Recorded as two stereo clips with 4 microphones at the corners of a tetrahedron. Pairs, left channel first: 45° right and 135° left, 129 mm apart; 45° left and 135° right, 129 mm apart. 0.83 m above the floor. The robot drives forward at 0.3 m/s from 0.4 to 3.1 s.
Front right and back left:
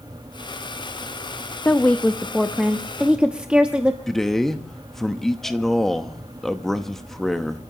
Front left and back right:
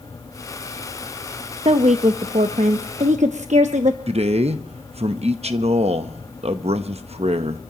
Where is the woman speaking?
115° right, 0.6 m; by 4.0 s 145° right, 0.9 m.